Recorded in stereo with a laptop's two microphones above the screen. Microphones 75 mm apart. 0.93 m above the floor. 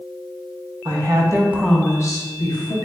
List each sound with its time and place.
0.8 s a woman speaking: 65° right (ahead or behind), 1.0 m; by 2.8 s 70° left (ahead or behind), 1.2 m